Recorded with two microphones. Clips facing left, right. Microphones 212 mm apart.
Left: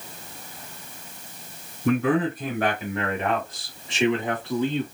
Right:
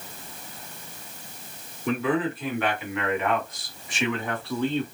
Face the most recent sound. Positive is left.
turn(degrees=10)  # may be behind; listen again after turning